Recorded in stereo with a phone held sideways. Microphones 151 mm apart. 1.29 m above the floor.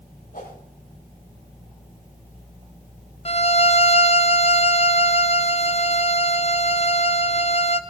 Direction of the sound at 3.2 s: 45° left (ahead or behind).